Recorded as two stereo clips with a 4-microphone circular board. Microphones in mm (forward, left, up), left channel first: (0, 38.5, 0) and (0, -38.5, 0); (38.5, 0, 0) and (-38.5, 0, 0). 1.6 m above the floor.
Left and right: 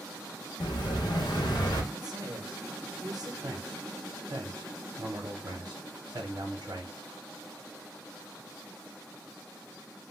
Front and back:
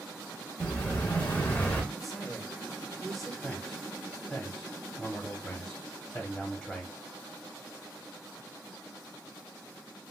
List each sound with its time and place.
0.6 s an explosion: 70° left, 0.8 m
1.9 s a man speaking: 85° right, 0.7 m
3.4 s a man speaking: 90° right, 0.8 m